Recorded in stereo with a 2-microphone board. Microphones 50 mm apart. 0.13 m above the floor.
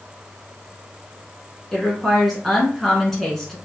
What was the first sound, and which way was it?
A woman speaking, 5° left (ahead or behind).